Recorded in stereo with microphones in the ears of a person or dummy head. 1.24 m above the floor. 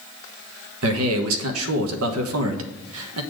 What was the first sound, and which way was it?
A man speaking, 75° right (ahead or behind).